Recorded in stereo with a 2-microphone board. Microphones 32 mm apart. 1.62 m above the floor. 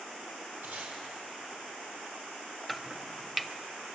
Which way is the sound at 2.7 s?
5° right (ahead or behind).